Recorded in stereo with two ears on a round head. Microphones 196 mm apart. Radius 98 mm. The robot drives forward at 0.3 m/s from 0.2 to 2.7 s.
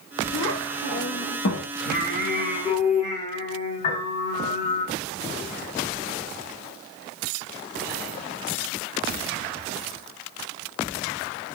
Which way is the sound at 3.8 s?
40° left (ahead or behind).